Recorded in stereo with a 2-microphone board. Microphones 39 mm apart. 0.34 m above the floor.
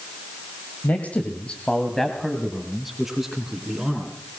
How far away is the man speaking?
About 2 m.